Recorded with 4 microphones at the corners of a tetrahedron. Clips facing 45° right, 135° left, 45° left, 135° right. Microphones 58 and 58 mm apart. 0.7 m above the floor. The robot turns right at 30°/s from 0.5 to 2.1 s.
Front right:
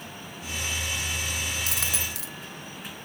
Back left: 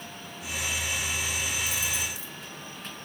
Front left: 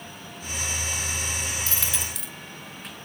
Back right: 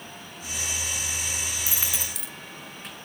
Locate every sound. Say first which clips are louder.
1.7 s a dropped coin: even, front left 1 dB; 60° right, 0.9 m; by 2.3 s 45° right, 0.9 m